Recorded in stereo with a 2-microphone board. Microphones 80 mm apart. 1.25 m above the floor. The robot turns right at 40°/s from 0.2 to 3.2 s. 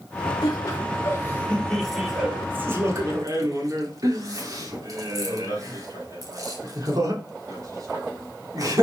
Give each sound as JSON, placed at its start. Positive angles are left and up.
{"t": 0.4, "sound": "laughter", "side_deg": 60, "distance_m": 3.0}